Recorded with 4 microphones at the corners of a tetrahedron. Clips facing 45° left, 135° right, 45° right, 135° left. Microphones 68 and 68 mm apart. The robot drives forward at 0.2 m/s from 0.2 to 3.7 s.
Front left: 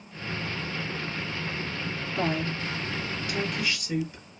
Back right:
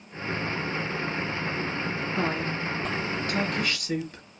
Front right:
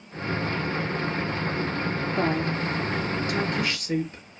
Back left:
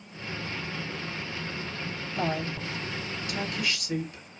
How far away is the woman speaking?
About 2.5 m.